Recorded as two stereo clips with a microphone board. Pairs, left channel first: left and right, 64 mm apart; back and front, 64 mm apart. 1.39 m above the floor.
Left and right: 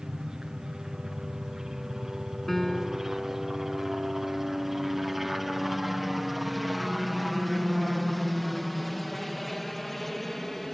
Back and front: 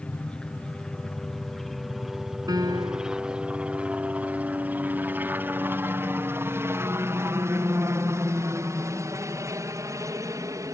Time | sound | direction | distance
0.0 | a helicopter | 150° right | ?
2.5 | a piano | 5° left | ?